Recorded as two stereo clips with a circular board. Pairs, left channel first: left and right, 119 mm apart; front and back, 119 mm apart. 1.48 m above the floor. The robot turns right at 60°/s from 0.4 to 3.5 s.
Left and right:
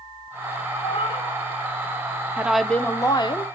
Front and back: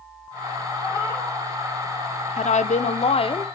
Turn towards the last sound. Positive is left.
turn(degrees=55)